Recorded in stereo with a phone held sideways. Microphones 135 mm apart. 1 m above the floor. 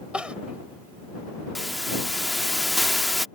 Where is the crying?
10° right (ahead or behind).